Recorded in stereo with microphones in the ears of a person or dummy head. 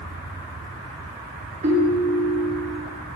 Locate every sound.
1.6 s a ringtone: 40° right (ahead or behind), 2.5 m